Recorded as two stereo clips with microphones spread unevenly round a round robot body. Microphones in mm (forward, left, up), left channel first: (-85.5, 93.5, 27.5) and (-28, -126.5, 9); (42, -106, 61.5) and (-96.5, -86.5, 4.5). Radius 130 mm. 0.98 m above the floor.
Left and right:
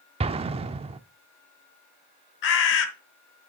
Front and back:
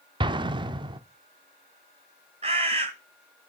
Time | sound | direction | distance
0.2 | an explosion | 120° right | 0.6 m
2.4 | a bird | 95° left | 1.0 m